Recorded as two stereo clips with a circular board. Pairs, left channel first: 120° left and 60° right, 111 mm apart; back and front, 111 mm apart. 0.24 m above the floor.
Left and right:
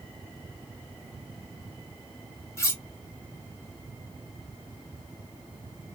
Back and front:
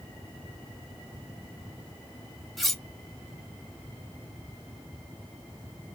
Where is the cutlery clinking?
95° left, 0.6 m.